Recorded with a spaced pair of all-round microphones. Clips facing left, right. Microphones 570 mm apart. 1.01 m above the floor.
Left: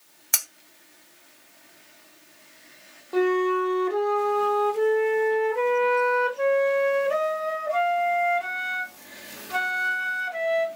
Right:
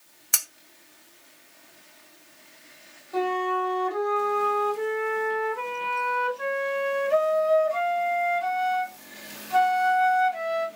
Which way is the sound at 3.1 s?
80° left.